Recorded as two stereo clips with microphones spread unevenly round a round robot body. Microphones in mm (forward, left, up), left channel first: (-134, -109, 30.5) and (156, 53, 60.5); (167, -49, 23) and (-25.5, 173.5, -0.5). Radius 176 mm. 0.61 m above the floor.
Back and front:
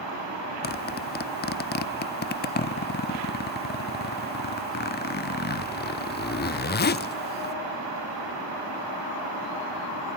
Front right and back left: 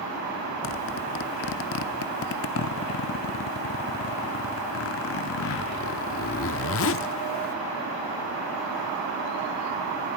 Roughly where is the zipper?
Right.